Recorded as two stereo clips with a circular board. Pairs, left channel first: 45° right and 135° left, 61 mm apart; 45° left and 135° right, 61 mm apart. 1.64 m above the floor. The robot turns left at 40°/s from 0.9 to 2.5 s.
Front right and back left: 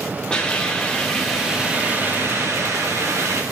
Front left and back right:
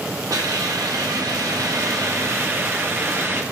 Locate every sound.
0.3 s a hiss: 120° right, 1.1 m; by 3.4 s 175° left, 1.1 m